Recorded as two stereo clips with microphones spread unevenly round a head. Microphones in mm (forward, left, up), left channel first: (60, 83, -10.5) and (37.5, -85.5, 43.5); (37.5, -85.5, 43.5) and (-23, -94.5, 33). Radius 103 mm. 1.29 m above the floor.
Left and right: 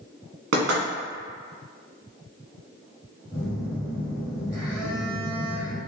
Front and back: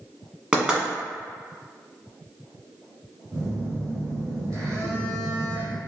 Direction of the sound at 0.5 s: 100° right.